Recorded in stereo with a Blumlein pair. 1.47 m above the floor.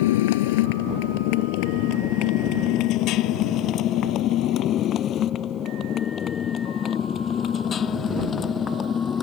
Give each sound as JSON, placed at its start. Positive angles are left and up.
{"t": 0.0, "sound": "a motorcycle", "azimuth_deg": 55}